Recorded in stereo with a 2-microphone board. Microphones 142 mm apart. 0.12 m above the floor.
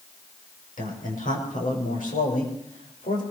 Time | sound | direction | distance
0.8 | a man speaking | 75° left (ahead or behind) | 6.5 m